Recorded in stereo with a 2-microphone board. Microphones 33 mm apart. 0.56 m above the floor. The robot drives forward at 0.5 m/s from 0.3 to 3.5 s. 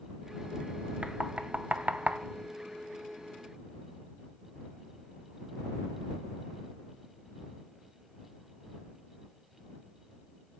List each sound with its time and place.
1.0 s knocking: 40° right (ahead or behind), 0.8 m; by 2.2 s 55° right (ahead or behind), 0.7 m